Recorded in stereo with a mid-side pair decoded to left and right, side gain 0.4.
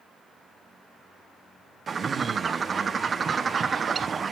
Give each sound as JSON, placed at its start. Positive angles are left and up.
{"t": 1.9, "sound": "a bird", "azimuth_deg": -45, "distance_m": 0.8}